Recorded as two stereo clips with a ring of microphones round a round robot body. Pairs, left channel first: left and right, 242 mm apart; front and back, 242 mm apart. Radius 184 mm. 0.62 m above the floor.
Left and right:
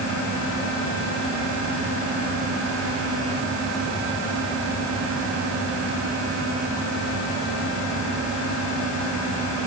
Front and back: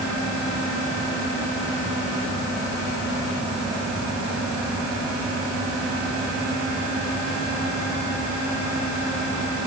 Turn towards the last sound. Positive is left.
No sound to turn to.